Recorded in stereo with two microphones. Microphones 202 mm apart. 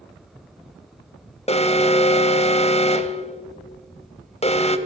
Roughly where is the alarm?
Left.